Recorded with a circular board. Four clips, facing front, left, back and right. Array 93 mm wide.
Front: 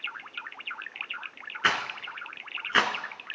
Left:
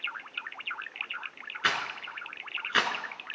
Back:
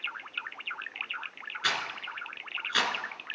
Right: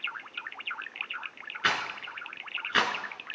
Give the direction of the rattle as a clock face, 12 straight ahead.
12 o'clock.